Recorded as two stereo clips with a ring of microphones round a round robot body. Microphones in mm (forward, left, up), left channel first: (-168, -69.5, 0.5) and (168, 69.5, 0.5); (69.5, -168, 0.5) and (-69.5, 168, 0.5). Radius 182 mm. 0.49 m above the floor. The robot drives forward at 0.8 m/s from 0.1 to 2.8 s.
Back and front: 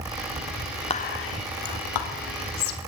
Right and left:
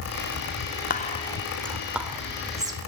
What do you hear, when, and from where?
0.9 s whispering: 100° right, 0.7 m; by 2.8 s 170° right, 1.7 m